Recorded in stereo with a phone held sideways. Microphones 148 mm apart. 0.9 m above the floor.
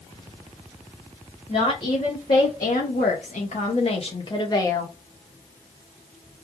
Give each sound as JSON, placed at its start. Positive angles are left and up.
{"t": 1.5, "sound": "a woman speaking", "side_deg": 50, "distance_m": 1.3}